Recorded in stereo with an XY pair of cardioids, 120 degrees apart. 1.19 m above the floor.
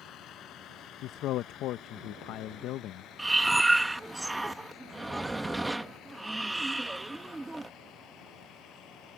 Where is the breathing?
15° right.